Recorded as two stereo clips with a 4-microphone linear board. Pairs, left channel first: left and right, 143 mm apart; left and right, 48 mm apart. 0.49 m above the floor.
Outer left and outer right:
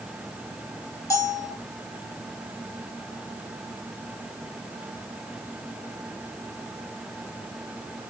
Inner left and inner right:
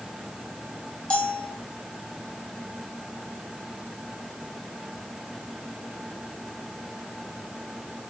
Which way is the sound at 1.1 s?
20° left (ahead or behind).